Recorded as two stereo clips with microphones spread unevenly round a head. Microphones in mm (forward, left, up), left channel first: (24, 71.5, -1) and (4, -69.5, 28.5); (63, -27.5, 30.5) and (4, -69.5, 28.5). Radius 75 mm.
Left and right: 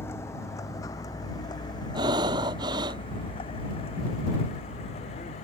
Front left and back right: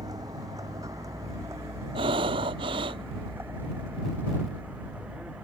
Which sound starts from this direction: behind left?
A vehicle, at 0.0 s.